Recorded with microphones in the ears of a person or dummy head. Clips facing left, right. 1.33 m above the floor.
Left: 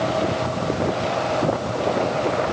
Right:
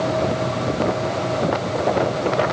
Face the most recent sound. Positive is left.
No sound to turn to.